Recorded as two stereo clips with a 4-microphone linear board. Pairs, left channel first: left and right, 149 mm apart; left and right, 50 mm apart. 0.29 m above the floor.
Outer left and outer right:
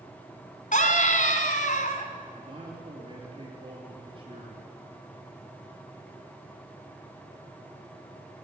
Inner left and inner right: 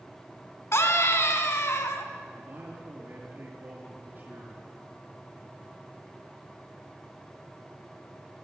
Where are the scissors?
I don't hear scissors.